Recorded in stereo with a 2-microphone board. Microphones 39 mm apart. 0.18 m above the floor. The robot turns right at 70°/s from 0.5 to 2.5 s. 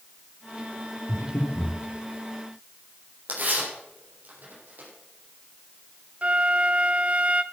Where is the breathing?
70° left (ahead or behind), 4.5 m; by 1.8 s 35° left (ahead or behind), 4.5 m.